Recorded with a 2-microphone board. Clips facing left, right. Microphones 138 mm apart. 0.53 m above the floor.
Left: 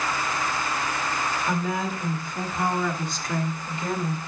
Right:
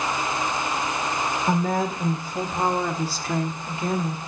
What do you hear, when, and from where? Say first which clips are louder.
1.5 s a woman speaking: right 6 dB; 45° right (ahead or behind), 1.7 m; by 4.2 s 20° right (ahead or behind), 1.3 m